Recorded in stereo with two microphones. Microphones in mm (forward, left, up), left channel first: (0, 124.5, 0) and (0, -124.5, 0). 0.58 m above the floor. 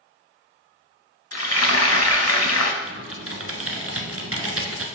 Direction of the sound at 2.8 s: 70° right (ahead or behind).